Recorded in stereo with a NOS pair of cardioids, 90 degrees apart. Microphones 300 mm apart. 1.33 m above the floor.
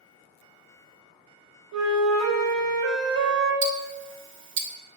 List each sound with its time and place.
1.7 s a flute: 70° right, 0.8 m
3.6 s ticking: 45° right, 0.5 m